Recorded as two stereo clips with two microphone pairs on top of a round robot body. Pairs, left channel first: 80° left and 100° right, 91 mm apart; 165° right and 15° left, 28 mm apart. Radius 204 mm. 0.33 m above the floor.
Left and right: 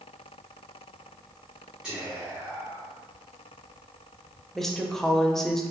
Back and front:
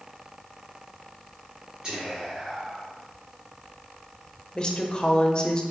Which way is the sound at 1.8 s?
15° right.